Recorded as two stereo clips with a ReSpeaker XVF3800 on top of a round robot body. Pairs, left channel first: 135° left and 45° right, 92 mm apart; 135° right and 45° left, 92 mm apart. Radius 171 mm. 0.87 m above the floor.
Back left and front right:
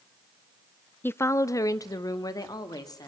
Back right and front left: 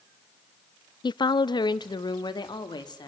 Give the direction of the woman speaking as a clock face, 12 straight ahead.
5 o'clock.